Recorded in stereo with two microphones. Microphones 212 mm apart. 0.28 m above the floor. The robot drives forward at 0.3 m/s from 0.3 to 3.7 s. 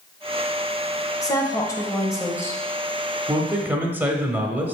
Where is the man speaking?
10° right (ahead or behind), 0.9 m.